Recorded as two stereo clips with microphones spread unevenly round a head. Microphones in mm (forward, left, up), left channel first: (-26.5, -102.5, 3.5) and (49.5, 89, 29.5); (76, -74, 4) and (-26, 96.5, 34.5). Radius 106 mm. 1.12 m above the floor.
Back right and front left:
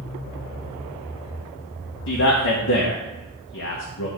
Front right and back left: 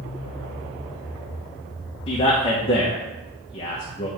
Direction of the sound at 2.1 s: 115° right.